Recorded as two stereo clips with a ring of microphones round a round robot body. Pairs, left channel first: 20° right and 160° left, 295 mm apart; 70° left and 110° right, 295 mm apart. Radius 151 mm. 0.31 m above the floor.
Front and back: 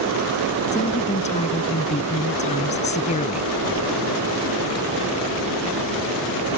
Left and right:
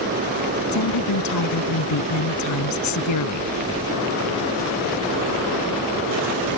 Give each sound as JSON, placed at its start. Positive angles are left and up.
{"t": 0.7, "sound": "a woman speaking", "azimuth_deg": 45}